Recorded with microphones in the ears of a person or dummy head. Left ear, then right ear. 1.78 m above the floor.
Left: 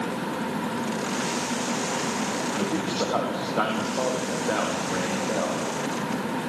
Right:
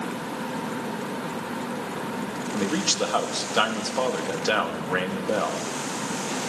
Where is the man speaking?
75° right (ahead or behind), 3.5 m.